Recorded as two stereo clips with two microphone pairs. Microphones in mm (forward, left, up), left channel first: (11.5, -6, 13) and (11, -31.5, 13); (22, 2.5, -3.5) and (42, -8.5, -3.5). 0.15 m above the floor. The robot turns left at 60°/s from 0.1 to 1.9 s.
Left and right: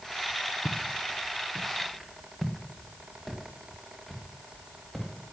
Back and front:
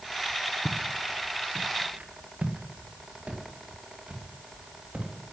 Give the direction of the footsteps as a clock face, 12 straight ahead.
10 o'clock.